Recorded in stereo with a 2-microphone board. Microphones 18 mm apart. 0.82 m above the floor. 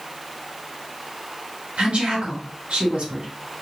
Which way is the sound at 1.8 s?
75° right (ahead or behind).